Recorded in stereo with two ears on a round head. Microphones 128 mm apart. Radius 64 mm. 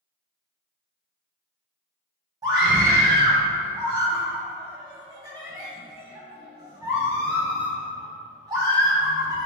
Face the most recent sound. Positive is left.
turn(degrees=-25)  # may be behind; listen again after turning